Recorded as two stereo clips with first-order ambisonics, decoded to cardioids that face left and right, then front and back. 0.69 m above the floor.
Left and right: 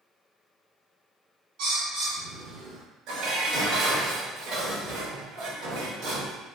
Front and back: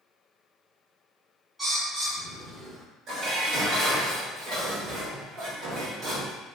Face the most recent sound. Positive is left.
turn(degrees=-130)